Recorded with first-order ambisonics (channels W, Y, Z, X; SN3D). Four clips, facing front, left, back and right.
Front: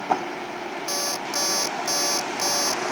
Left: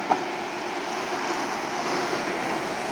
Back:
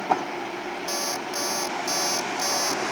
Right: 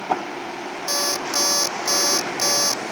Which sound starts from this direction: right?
An alarm clock, at 0.9 s.